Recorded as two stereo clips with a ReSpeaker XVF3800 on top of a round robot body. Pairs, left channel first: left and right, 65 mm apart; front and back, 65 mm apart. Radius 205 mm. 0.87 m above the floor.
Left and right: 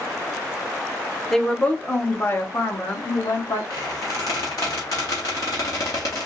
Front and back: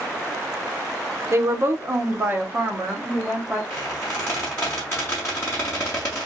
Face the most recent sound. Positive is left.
turn(degrees=60)